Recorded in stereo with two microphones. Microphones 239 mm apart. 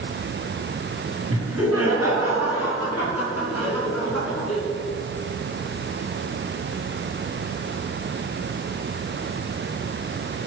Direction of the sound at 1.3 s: 70° right (ahead or behind).